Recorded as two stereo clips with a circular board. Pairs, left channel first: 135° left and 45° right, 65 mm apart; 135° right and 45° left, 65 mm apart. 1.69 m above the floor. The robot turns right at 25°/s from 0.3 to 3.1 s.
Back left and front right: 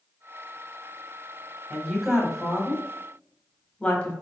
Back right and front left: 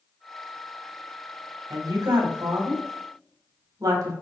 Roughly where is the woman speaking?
Ahead left.